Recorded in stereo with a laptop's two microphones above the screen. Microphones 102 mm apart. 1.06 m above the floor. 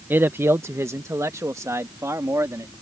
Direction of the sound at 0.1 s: 20° right (ahead or behind).